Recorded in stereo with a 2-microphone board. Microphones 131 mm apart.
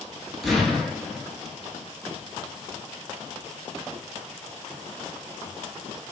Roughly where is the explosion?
Centre.